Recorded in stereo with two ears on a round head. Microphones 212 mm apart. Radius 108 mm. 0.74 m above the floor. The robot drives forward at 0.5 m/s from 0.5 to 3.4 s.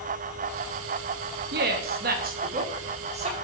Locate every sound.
1.5 s a woman speaking: 45° right (ahead or behind), 0.8 m; by 3.4 s 30° right (ahead or behind), 1.2 m